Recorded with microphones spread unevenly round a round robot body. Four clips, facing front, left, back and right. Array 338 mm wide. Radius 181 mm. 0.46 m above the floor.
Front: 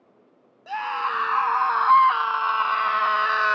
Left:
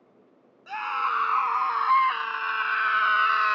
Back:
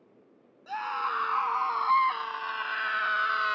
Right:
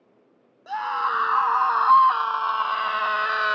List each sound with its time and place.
0.7 s a scream: 50° right; by 3.6 s 45° right